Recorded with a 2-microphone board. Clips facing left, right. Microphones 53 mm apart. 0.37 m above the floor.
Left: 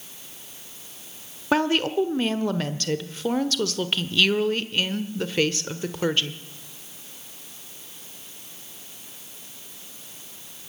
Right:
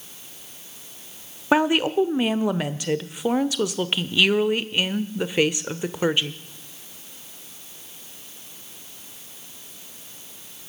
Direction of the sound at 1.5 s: 15° right (ahead or behind).